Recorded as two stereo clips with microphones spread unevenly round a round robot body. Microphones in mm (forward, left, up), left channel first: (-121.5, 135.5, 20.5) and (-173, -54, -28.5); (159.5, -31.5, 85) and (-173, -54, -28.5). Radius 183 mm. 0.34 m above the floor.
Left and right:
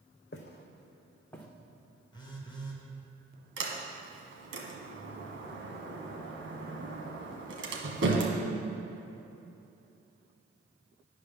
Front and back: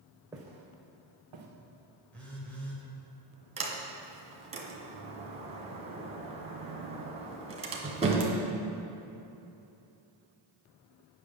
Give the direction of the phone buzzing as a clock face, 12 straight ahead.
7 o'clock.